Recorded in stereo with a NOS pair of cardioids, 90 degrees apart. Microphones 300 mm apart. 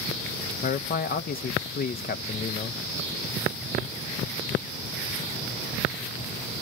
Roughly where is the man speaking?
Ahead left.